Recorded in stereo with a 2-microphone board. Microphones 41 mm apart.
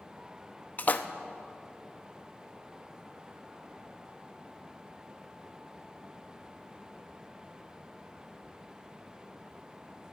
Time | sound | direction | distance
0.8 | a splash | 40° left (ahead or behind) | 0.5 m